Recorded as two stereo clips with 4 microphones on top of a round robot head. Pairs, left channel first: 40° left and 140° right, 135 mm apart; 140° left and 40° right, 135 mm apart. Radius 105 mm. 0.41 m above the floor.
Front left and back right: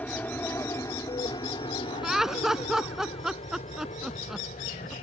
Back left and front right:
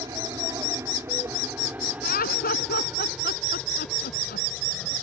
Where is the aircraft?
25° right; by 5.0 s 60° left.